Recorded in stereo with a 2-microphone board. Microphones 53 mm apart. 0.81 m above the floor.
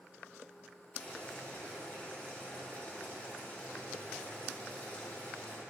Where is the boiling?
30° left (ahead or behind), 1.8 m.